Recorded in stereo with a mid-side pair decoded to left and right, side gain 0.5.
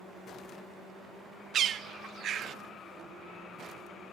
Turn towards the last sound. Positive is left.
turn(degrees=-55)